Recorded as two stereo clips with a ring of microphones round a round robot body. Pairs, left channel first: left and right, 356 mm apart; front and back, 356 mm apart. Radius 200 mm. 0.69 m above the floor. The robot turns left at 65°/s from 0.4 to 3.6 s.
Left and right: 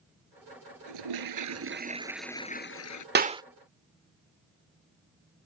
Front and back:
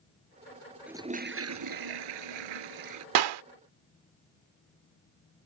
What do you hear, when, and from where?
0.9 s a toilet flushing: 95° right; by 3.0 s 125° left
3.1 s a clap: 155° right; by 3.4 s 170° right